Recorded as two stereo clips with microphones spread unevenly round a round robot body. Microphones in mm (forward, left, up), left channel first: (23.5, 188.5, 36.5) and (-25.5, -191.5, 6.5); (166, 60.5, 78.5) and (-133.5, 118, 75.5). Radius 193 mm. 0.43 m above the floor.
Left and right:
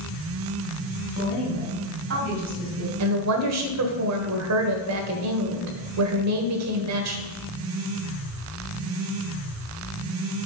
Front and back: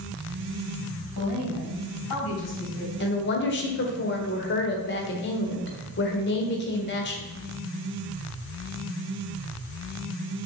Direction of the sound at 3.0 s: 60° right.